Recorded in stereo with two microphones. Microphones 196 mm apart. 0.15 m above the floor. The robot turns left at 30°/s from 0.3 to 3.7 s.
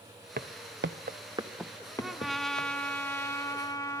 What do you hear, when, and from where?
0.4 s footsteps: 50° right (ahead or behind), 0.7 m; by 2.7 s 45° left (ahead or behind), 1.9 m
2.0 s a trumpet: 5° right (ahead or behind), 0.8 m; by 4.0 s 15° left (ahead or behind), 0.8 m